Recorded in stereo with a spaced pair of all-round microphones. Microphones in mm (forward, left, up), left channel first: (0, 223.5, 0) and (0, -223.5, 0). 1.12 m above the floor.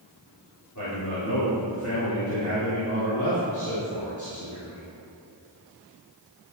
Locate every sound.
0.8 s a man speaking: 40° left (ahead or behind), 3.5 m